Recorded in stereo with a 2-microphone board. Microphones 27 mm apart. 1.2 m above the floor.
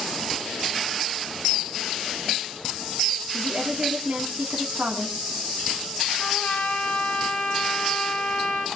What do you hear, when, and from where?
3.3 s a woman speaking: 55° right (ahead or behind), 3.5 m
6.2 s a trumpet: 80° left, 3 m